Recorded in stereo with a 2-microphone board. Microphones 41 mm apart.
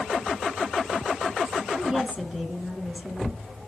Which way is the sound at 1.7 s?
15° right (ahead or behind).